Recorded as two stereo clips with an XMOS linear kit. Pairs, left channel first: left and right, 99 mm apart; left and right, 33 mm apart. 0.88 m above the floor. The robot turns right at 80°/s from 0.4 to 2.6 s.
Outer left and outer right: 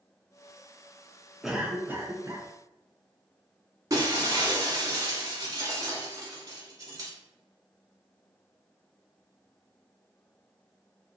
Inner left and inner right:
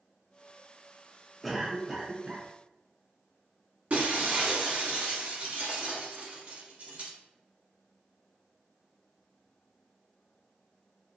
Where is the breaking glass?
35° right (ahead or behind), 1.1 m.